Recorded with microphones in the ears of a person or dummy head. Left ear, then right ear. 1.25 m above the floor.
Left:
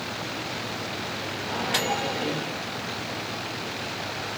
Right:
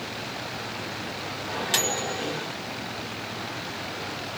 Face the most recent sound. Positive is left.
turn(degrees=-85)